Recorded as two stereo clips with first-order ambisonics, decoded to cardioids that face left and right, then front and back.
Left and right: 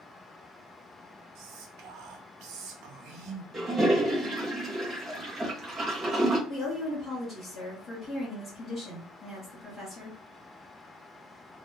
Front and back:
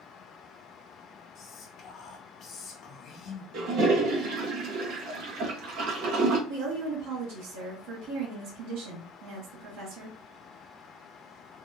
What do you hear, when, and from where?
1.4 s whispering: 60° right, 0.7 m
3.5 s a toilet flushing: 160° right, 0.8 m
6.5 s a woman speaking: 165° left, 1.6 m